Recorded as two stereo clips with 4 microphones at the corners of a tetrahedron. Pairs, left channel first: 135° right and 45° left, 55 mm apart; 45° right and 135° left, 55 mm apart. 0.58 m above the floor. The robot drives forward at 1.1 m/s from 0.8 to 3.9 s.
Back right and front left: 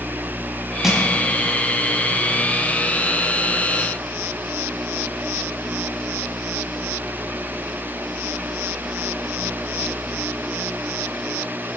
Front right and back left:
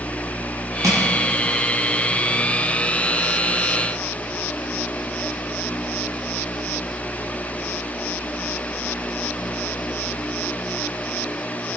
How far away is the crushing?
About 4 m.